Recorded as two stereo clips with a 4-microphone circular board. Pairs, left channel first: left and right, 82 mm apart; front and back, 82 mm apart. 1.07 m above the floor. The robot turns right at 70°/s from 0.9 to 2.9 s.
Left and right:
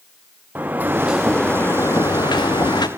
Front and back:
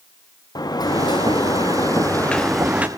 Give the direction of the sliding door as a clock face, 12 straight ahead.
1 o'clock.